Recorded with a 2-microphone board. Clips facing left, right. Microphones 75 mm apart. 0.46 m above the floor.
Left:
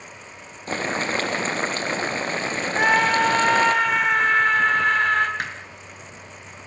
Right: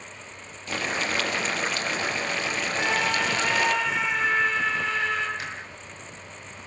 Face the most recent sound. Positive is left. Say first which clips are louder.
# left 5 dB
turn(degrees=55)  # may be behind; listen again after turning